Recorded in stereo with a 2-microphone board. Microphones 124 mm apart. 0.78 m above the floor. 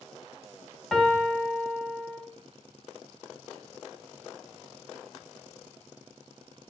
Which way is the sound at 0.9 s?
Centre (ahead or behind).